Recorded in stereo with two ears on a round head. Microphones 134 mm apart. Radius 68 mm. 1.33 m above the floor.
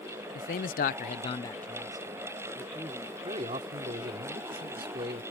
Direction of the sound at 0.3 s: 60° left (ahead or behind).